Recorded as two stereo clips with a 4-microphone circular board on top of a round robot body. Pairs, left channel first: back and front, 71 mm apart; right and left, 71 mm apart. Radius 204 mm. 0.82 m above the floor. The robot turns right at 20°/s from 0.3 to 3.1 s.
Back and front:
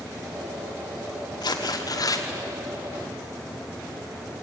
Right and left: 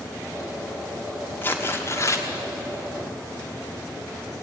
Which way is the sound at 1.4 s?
155° right.